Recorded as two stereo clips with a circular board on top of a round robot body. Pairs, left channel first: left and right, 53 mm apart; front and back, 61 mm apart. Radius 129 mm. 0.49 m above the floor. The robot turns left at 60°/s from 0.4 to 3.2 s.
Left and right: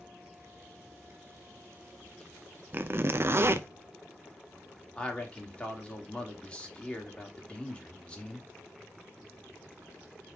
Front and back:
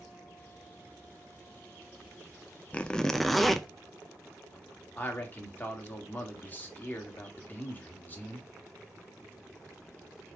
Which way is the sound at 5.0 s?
40° left.